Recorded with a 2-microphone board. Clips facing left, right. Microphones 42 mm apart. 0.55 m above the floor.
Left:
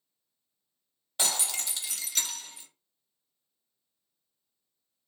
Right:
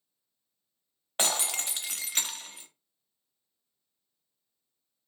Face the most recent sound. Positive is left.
turn(degrees=-45)  # may be behind; listen again after turning